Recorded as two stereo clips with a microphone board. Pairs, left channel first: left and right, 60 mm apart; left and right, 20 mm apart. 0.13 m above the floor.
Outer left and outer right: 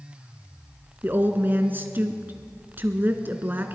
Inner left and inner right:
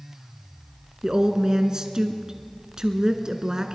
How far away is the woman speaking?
About 1.4 m.